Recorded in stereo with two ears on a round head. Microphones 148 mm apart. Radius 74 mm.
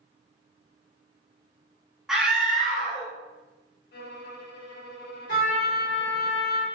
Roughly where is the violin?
Left.